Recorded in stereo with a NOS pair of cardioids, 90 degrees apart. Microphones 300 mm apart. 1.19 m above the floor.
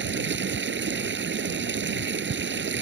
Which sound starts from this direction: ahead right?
Running water, at 0.0 s.